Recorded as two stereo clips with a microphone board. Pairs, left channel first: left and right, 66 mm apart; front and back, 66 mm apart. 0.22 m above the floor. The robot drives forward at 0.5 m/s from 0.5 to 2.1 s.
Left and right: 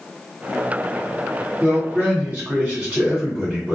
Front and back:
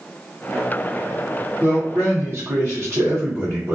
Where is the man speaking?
150° right, 1.5 m; by 3.8 s 155° right, 1.7 m.